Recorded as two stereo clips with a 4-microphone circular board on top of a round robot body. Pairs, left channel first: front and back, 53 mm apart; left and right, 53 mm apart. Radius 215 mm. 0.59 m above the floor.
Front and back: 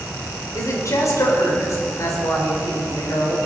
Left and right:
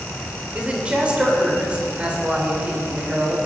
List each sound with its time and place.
0.6 s a woman speaking: 20° right, 3 m